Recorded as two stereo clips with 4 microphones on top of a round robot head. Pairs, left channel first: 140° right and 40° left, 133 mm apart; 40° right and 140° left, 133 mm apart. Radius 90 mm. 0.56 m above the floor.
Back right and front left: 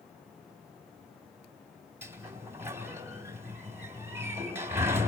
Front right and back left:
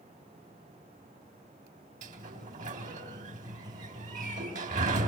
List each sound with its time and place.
2.0 s a sliding door: 110° left, 4 m